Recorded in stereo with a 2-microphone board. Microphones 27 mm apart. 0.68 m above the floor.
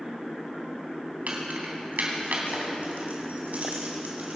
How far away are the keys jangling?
About 3 m.